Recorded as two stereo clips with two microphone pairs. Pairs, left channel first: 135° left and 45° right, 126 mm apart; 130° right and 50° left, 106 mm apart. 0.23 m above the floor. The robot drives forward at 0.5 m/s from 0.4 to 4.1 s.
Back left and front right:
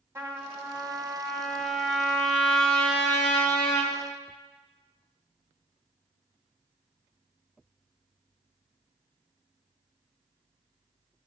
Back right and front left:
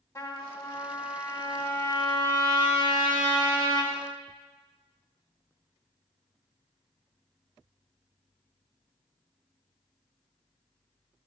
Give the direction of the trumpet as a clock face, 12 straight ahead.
3 o'clock.